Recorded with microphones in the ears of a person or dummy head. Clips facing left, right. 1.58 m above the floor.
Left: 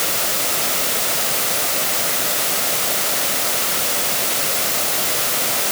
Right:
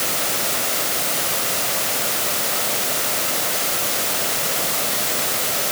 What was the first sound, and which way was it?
Only background noise.